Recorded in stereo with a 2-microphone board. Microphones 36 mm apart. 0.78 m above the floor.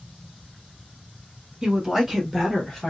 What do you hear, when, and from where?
1.6 s a woman speaking: 15° right (ahead or behind), 1.3 m; by 2.9 s 15° left (ahead or behind), 1.0 m